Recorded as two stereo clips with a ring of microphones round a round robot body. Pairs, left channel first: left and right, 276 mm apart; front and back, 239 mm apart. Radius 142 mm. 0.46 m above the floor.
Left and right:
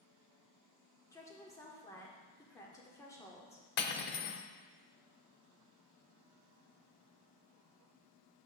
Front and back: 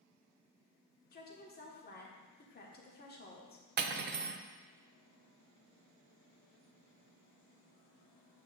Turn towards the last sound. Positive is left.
turn(degrees=135)